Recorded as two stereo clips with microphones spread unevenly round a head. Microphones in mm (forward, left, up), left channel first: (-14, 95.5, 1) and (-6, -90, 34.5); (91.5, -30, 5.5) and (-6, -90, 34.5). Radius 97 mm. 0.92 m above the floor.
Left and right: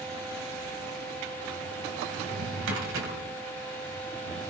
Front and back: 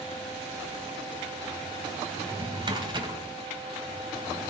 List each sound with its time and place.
2.2 s a drawer: 105° right, 3 m